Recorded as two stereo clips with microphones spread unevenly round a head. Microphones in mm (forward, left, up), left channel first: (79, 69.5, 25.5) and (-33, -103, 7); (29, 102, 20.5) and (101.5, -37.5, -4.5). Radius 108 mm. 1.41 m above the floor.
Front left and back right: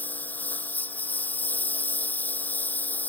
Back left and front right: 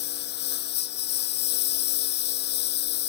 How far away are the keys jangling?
No keys jangling in this recording.